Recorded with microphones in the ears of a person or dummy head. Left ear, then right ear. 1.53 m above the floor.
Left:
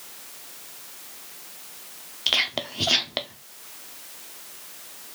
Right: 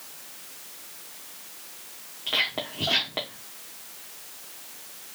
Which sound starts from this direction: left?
Whispering, at 2.3 s.